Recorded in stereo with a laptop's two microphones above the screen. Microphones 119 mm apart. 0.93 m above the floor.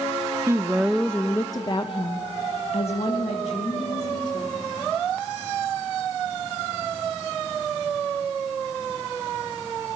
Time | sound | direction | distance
0.5 | a woman speaking | 25° right (ahead or behind) | 0.9 m